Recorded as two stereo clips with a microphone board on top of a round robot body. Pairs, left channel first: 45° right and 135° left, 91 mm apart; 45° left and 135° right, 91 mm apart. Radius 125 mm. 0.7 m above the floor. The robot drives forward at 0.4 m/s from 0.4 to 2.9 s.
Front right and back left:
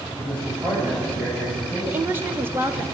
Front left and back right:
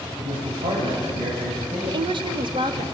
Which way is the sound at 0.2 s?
150° right.